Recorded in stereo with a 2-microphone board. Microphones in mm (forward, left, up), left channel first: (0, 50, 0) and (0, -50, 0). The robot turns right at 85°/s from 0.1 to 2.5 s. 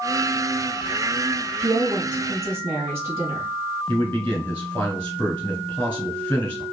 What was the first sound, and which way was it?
A woman speaking, 105° right.